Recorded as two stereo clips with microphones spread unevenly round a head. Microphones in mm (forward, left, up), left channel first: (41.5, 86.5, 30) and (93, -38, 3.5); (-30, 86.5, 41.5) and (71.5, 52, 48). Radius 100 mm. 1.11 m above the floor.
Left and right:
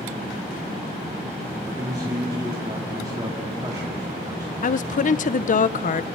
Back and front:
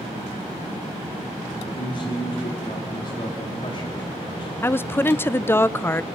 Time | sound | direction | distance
1.6 | a man speaking | 140° right | 2.5 m
4.6 | a woman speaking | 100° left | 0.6 m